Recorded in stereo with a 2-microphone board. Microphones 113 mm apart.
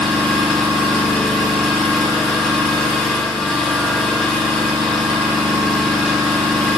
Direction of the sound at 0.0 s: Centre (ahead or behind).